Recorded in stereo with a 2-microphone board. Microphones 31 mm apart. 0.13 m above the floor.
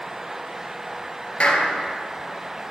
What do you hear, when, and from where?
1.4 s a clap: 40° left (ahead or behind), 1.7 m